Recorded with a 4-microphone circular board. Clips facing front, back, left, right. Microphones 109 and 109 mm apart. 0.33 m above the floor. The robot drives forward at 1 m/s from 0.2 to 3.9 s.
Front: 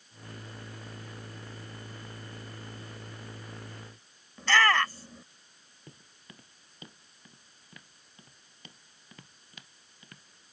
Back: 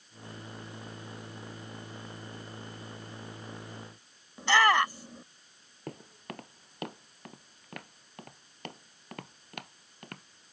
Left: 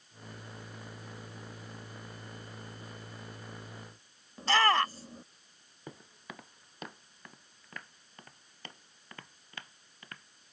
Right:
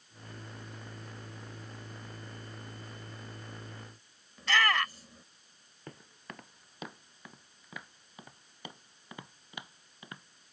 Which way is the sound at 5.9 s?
170° left.